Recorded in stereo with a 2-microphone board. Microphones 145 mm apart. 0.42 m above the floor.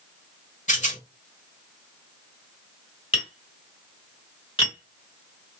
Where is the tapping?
35° left (ahead or behind), 2.0 m.